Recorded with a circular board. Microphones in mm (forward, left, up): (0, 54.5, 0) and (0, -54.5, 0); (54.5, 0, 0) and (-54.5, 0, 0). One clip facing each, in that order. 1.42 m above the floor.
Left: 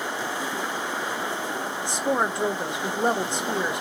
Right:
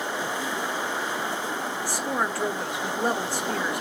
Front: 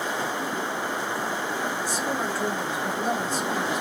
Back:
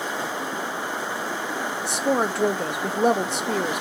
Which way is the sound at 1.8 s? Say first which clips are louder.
Left 4 dB, back 5 dB; 160° left.